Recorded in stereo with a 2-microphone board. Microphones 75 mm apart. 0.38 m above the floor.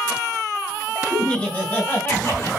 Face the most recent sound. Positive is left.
turn(degrees=40)  # may be behind; listen again after turning